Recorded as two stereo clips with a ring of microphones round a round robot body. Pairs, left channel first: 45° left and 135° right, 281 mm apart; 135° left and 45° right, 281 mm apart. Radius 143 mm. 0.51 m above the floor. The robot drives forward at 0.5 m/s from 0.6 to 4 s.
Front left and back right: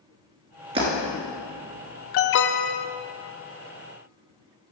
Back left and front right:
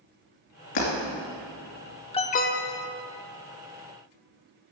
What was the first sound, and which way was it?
Breaking glass, 150° left.